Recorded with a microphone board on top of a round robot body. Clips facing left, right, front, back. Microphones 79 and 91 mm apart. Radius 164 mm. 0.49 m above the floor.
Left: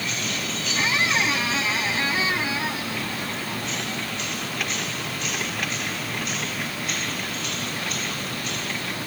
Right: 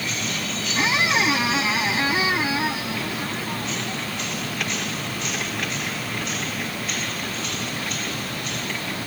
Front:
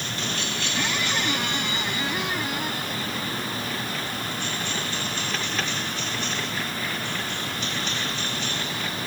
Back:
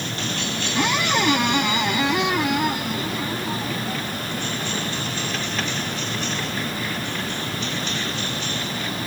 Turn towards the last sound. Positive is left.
turn(degrees=-165)